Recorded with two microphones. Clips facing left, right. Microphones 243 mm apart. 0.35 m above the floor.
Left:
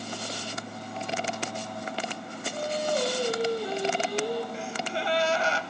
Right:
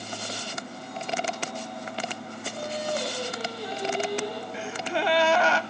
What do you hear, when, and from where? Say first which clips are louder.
2.5 s singing: left 3 dB; 45° left (ahead or behind), 4 m
4.5 s a gasp: right 2 dB; 85° right, 0.5 m